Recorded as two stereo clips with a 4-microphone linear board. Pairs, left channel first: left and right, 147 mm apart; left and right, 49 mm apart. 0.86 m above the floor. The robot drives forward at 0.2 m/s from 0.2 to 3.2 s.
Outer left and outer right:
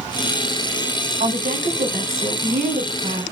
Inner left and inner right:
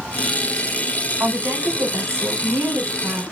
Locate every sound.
1.2 s a woman speaking: 70° right (ahead or behind), 3 m; by 3.2 s 75° right (ahead or behind), 3 m